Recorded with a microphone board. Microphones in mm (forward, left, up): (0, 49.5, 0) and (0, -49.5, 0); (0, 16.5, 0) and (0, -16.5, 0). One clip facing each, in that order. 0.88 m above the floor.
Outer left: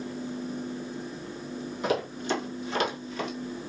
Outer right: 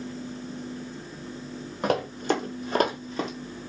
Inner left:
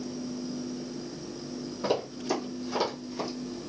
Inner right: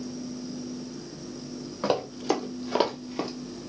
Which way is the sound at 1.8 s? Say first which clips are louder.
Outer right 3 dB, inner right 3 dB; 55° right (ahead or behind).